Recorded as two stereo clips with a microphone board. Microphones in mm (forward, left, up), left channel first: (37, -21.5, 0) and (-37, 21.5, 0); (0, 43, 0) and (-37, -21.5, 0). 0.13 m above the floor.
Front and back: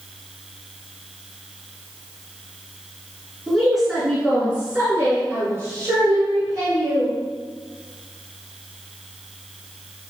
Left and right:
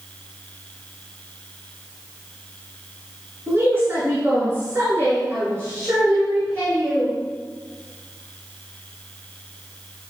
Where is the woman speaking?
110° right, 1.8 m; by 7.2 s 175° right, 2.5 m.